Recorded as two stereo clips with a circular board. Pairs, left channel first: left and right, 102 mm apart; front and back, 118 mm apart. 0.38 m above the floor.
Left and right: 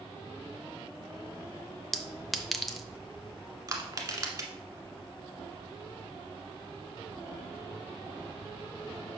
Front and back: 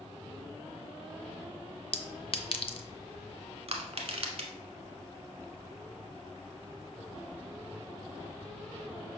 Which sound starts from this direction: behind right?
Crushing, at 3.7 s.